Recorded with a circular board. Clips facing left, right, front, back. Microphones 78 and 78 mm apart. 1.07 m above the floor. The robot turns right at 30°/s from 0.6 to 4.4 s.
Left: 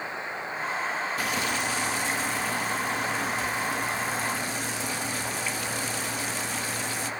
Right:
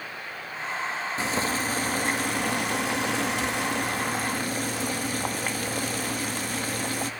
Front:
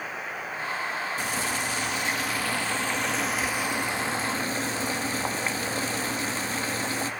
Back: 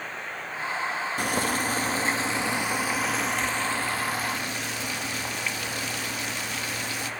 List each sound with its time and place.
1.2 s boiling: 150° right, 1.7 m; by 7.1 s 55° right, 1.7 m